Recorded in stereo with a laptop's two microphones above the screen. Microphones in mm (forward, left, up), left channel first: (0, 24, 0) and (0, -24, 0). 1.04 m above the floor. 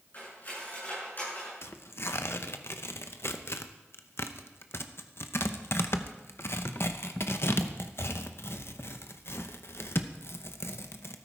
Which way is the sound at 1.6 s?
55° left (ahead or behind).